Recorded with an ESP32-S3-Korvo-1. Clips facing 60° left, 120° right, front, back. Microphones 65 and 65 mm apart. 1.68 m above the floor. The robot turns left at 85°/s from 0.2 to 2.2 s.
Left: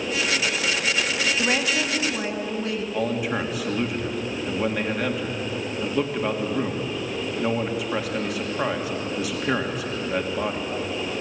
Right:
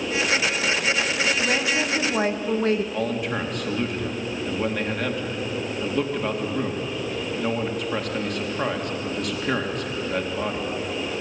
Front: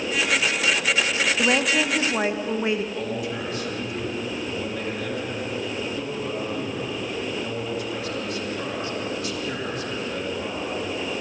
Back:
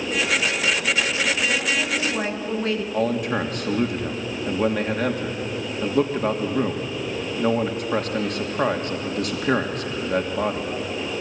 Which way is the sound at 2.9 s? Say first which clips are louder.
Left 1 dB, back 6 dB; 145° left.